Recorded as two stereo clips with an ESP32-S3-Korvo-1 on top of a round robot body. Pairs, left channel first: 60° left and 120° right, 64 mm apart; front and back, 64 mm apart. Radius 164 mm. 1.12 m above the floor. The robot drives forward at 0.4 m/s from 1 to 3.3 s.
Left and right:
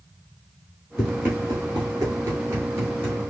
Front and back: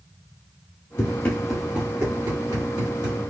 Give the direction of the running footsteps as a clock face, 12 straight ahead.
1 o'clock.